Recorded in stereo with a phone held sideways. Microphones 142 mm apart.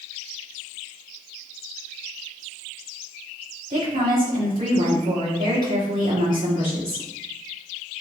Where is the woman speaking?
85° right, 2.5 m.